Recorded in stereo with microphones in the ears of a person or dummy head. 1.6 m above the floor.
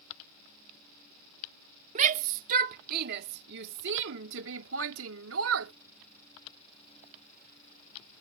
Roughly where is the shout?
Right.